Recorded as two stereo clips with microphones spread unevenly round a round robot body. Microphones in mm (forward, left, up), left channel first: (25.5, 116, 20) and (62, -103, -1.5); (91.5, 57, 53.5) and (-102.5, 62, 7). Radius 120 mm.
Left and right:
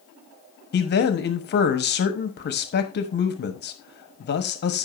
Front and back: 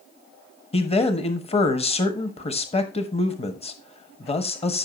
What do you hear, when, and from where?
0.7 s a man speaking: 60° left, 1.4 m